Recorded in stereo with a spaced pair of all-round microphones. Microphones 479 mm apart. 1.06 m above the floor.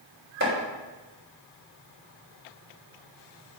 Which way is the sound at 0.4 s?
25° right (ahead or behind).